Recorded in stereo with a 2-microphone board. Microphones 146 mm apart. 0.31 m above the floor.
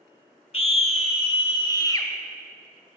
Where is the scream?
45° left (ahead or behind), 1.3 m; by 2.1 s 20° left (ahead or behind), 1.1 m.